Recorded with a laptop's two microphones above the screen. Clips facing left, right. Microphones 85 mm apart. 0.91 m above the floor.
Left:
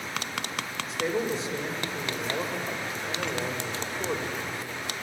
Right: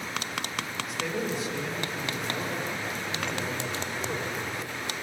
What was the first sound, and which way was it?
A man speaking, 30° left (ahead or behind).